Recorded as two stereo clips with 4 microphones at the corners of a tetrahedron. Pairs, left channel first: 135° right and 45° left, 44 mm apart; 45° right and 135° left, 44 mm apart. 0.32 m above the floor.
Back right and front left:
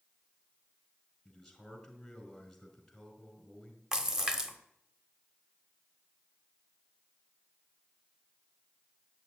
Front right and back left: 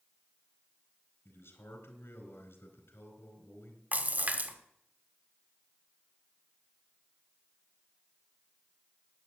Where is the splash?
120° left, 1.5 m.